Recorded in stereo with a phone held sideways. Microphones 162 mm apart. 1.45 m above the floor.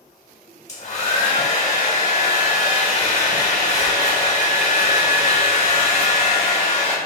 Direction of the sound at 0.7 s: 45° left (ahead or behind).